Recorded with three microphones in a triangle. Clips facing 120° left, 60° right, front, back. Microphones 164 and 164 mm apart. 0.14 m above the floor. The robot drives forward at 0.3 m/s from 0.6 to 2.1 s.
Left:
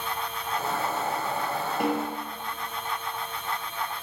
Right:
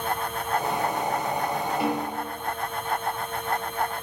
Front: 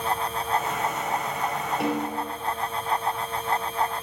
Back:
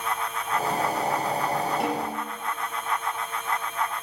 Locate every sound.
1.8 s a snare drum: 90° left, 3 m